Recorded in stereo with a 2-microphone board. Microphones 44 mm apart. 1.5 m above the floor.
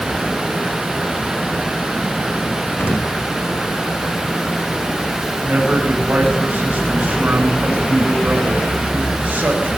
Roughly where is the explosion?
Left.